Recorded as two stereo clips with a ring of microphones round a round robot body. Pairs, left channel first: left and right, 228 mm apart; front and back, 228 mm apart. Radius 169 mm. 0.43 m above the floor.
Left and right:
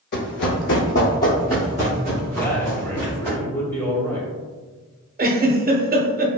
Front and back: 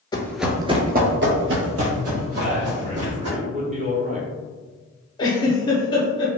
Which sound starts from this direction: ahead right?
A giggle, at 5.2 s.